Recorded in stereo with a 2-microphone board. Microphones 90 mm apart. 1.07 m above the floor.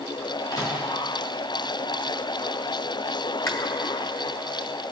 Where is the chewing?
35° left (ahead or behind), 1.0 m.